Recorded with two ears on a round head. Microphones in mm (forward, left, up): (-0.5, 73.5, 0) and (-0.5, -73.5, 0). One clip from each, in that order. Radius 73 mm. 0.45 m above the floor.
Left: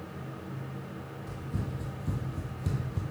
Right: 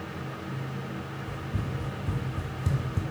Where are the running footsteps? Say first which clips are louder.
Right 4 dB; 55° left (ahead or behind), 1.0 m; by 3.0 s 20° right (ahead or behind), 0.8 m.